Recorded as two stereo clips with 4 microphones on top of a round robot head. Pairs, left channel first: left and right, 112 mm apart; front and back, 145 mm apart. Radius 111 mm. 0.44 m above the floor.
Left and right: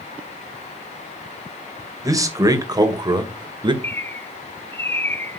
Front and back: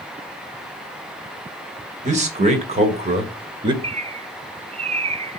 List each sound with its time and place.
2.0 s a man speaking: 145° right, 2.5 m; by 3.7 s 125° right, 1.9 m
3.8 s a bird: 155° left, 0.7 m